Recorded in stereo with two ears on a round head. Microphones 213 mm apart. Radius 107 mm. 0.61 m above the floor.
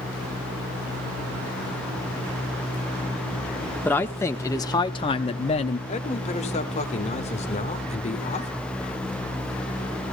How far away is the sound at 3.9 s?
About 1.1 m.